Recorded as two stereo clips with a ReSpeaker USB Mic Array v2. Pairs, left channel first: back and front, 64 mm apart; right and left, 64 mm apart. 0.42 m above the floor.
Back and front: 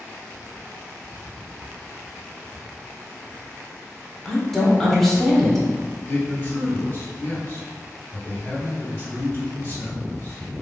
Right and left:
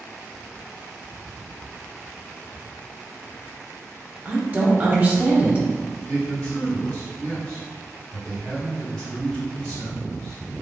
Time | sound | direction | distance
4.2 | a woman speaking | 100° left | 0.9 m
6.1 | a man speaking | 155° right | 1.9 m